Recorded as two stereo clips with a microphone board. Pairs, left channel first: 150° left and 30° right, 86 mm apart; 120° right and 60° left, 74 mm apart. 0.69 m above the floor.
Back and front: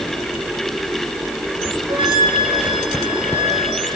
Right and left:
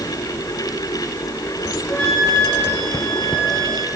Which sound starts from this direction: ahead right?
A flute, at 1.9 s.